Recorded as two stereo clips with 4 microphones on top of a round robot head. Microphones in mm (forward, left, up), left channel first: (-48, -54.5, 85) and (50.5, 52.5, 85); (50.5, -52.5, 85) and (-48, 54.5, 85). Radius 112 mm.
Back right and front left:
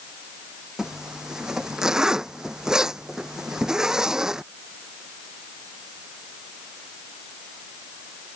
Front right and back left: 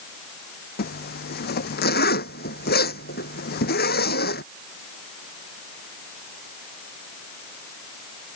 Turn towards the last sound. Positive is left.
turn(degrees=-40)